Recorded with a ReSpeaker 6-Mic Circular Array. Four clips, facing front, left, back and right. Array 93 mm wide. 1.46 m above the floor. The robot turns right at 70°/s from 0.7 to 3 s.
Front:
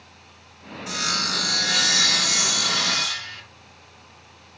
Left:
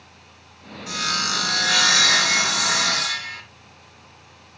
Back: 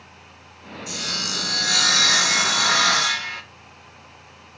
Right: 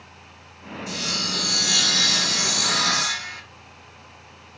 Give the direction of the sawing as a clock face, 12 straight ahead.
11 o'clock.